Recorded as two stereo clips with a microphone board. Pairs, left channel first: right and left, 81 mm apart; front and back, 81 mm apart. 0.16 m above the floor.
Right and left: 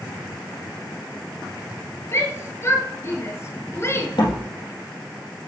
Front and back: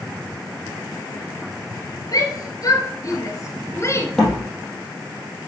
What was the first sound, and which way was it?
A shout, 35° right.